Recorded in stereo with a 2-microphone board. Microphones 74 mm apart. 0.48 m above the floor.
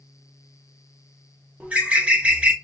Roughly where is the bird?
Centre.